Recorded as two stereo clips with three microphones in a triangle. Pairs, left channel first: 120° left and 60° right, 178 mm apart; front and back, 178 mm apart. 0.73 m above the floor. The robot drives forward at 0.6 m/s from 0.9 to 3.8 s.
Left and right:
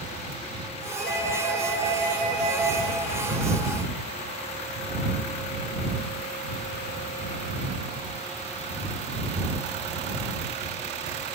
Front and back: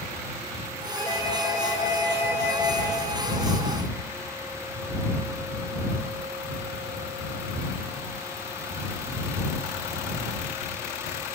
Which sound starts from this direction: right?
A doorbell, at 1.0 s.